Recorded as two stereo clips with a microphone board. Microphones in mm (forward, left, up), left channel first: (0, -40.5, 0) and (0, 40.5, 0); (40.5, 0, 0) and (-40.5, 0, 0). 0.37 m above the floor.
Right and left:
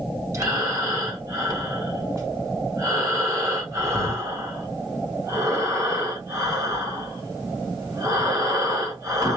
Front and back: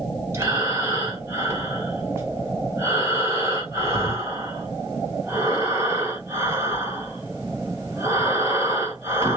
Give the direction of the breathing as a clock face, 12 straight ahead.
8 o'clock.